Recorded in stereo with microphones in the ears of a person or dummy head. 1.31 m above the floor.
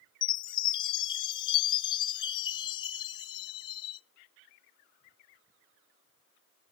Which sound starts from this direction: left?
A chime, at 0.2 s.